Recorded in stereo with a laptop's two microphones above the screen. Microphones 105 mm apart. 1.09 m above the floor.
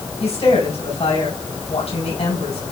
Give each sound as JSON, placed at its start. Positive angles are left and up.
{"t": 0.2, "sound": "a woman speaking", "side_deg": 80, "distance_m": 4.5}